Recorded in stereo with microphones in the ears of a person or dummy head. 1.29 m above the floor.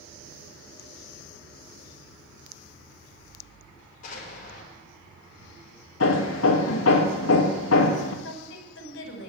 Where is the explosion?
50° left (ahead or behind), 5 m.